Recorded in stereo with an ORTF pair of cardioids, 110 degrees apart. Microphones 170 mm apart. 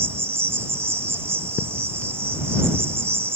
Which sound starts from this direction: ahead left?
A thud, at 1.6 s.